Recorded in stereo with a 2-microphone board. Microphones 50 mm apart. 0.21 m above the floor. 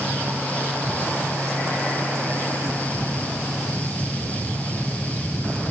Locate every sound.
Only background noise.